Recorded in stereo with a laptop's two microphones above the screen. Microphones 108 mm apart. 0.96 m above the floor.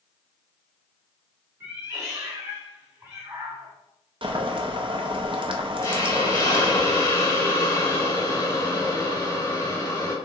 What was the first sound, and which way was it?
A cat meowing, 25° right (ahead or behind).